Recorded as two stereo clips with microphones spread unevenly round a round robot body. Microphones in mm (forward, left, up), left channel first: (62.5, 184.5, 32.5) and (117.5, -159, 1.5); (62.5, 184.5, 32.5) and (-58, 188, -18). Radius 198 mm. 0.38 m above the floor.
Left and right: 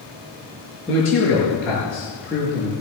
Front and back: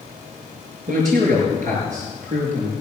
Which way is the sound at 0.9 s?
175° right.